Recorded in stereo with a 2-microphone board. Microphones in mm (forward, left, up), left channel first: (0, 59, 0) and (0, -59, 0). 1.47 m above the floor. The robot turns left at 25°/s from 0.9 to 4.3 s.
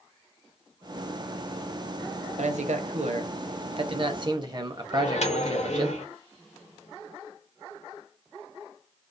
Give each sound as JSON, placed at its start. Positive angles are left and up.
{"t": 2.4, "sound": "a man speaking", "azimuth_deg": -95, "distance_m": 0.6}
{"t": 4.9, "sound": "a microwave", "side_deg": 70, "distance_m": 0.7}